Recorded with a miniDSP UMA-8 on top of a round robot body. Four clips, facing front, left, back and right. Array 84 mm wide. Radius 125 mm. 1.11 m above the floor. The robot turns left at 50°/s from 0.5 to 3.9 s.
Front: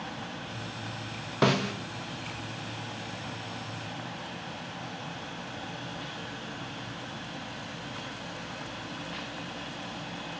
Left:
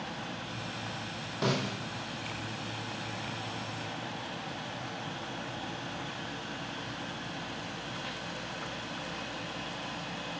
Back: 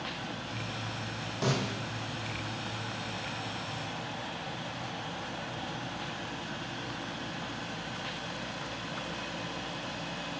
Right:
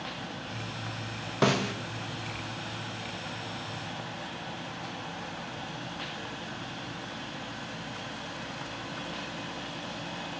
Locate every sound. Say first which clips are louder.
1.4 s a snare drum: right 5 dB, front 6 dB; 40° right, 1.7 m; by 1.7 s 55° right, 1.7 m